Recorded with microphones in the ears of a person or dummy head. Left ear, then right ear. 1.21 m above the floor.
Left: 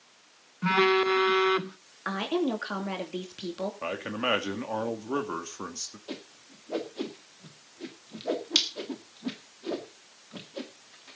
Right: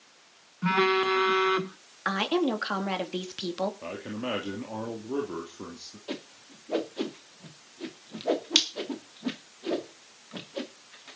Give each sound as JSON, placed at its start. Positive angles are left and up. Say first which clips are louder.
{"t": 0.6, "sound": "a phone buzzing", "louder": "left 1 dB", "side_deg": 10, "distance_m": 0.9}
{"t": 2.0, "sound": "a woman speaking", "louder": "right 3 dB", "side_deg": -20, "distance_m": 2.5}
{"t": 3.8, "sound": "a man speaking", "louder": "left 5 dB", "side_deg": 55, "distance_m": 2.5}
{"t": 6.1, "sound": "a whoosh", "louder": "right 3 dB", "side_deg": -15, "distance_m": 2.0}